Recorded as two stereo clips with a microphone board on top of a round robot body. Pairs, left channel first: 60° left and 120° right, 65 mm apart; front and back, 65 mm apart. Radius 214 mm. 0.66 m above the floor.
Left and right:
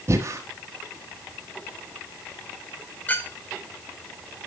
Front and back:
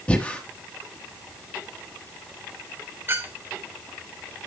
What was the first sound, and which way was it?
Breathing, 70° right.